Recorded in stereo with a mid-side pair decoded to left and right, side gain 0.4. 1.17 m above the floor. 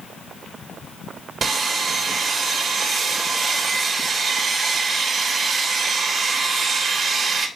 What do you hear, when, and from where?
1.4 s sawing: 55° right, 3 m